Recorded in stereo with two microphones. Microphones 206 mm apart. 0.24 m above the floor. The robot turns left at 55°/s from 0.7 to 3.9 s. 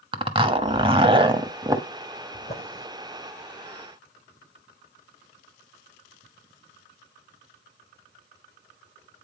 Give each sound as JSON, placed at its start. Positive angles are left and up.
{"t": 0.1, "sound": "a zipper", "side_deg": -25, "distance_m": 1.0}
{"t": 2.3, "sound": "a drawer", "side_deg": 45, "distance_m": 4.5}